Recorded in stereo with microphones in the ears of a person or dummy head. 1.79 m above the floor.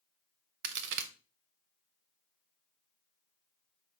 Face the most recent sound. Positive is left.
turn(degrees=-70)  # may be behind; listen again after turning